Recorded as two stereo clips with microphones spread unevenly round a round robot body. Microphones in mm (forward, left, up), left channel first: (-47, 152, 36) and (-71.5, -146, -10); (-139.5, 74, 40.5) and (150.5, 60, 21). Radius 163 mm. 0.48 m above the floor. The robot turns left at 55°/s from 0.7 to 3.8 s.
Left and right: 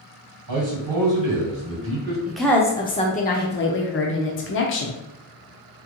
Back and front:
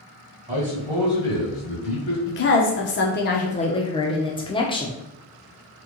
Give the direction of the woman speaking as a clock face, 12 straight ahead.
6 o'clock.